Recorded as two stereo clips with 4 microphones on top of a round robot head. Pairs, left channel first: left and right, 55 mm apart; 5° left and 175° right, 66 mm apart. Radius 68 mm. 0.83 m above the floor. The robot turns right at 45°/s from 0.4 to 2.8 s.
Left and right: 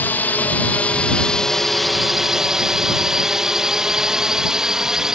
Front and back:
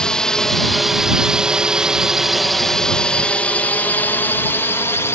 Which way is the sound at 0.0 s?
75° left.